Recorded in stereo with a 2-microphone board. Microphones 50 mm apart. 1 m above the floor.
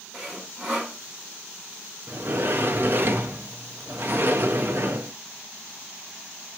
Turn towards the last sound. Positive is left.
turn(degrees=-45)  # may be behind; listen again after turning